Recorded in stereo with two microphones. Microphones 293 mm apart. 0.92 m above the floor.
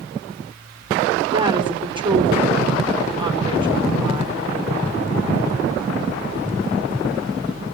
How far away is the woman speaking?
About 3.5 m.